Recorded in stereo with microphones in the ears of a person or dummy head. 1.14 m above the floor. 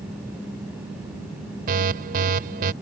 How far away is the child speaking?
I don't hear a child speaking.